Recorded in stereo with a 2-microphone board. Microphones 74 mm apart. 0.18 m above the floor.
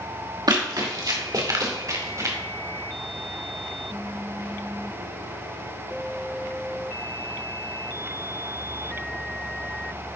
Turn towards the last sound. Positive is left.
turn(degrees=-45)  # may be behind; listen again after turning